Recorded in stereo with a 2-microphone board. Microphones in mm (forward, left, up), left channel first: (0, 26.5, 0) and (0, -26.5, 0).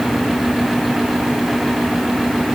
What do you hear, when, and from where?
Only background noise.